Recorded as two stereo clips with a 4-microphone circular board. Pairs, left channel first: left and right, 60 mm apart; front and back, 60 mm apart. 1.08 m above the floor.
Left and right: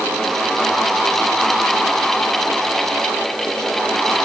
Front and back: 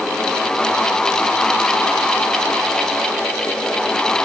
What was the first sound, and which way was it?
Only background noise.